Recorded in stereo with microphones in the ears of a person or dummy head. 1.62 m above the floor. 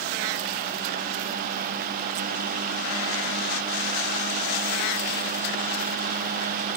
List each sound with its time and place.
Only background noise.